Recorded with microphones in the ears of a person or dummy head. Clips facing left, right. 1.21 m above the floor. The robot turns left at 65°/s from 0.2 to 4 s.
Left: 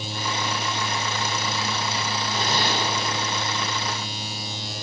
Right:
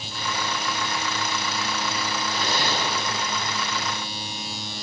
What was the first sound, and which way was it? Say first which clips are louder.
A zipper: left 2 dB; 155° left.